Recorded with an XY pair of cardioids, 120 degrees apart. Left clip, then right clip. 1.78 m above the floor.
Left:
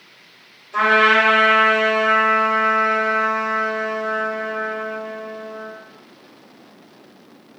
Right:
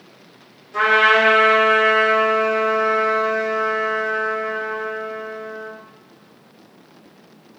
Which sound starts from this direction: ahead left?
A trumpet, at 0.7 s.